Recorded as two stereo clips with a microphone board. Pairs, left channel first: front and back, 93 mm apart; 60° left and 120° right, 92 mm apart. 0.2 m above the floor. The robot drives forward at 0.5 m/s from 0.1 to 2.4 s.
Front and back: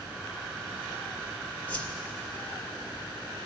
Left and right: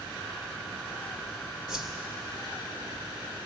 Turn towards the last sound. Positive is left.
turn(degrees=-90)